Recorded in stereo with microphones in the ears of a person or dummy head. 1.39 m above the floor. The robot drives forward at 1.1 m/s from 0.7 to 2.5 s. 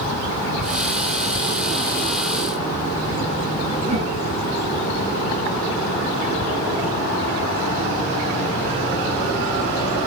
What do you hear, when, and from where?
3.8 s a whoosh: 30° right (ahead or behind), 6.5 m